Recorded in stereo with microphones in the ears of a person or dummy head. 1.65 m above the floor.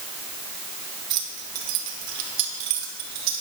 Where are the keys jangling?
50° right (ahead or behind), 0.9 m; by 3.4 s 60° right (ahead or behind), 2 m.